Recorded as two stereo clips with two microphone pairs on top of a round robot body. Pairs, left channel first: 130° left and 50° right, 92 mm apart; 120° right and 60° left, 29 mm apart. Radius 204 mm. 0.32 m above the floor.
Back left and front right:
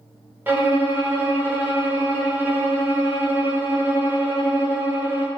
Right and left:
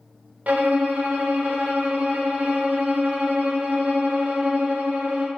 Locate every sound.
0.5 s a violin: 20° left, 0.7 m